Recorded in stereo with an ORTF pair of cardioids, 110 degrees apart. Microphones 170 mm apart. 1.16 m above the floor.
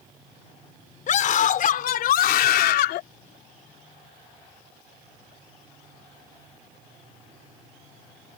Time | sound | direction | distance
1.1 | a scream | 50° left | ?